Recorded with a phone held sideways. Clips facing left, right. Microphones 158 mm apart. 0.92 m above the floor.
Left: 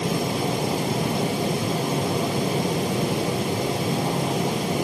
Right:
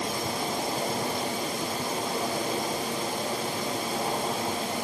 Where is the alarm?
No alarm in this recording.